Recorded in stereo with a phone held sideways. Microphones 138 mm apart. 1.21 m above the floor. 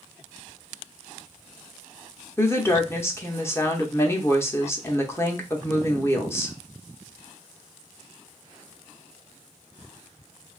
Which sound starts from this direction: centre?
A woman speaking, at 2.4 s.